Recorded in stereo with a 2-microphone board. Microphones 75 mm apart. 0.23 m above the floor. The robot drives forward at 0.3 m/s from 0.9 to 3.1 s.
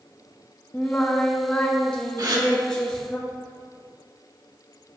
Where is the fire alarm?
No fire alarm in this recording.